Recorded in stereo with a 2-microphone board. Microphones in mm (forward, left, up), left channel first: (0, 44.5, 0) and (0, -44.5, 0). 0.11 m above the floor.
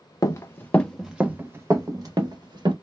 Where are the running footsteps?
40° left (ahead or behind), 0.6 m; by 2.7 s 55° right (ahead or behind), 1.1 m.